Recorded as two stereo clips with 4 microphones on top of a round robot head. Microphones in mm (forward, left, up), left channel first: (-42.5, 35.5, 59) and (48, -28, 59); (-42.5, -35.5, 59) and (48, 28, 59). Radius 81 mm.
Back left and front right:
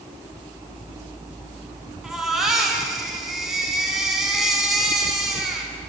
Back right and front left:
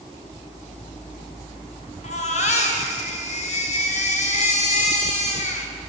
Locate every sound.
2.0 s a baby crying: 120° right, 4 m